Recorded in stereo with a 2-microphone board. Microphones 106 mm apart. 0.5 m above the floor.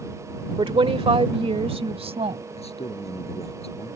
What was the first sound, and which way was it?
A woman speaking, 55° right (ahead or behind).